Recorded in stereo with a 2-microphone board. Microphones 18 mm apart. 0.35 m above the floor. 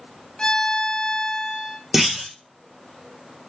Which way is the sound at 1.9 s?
15° right (ahead or behind).